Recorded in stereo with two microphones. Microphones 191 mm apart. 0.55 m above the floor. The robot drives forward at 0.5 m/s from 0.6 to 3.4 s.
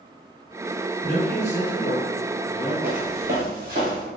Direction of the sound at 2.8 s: 55° right (ahead or behind).